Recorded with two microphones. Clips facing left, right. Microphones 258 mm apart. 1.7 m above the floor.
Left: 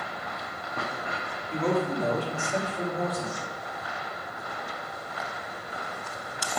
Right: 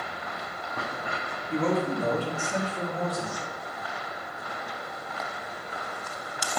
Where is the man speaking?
55° right (ahead or behind), 3 m; by 3.5 s 80° right, 2 m.